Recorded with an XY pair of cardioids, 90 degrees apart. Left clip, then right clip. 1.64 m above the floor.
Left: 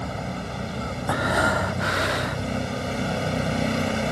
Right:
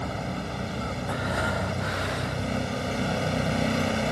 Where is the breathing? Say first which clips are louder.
Left 8 dB; 60° left.